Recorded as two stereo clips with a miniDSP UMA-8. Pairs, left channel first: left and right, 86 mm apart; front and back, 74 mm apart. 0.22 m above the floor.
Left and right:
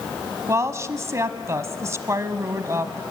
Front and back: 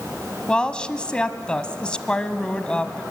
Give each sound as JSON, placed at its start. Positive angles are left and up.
{"t": 0.5, "sound": "a woman speaking", "azimuth_deg": -70, "distance_m": 1.1}